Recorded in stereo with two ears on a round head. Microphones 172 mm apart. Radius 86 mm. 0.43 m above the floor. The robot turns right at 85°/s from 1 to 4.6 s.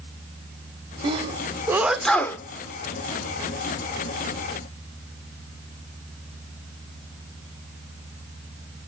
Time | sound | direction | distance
1.0 | a sneeze | 25° right (ahead or behind) | 0.8 m